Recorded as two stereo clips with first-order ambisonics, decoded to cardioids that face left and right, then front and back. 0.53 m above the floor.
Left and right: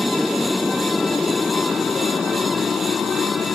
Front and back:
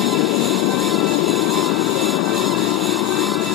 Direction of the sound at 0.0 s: 5° left.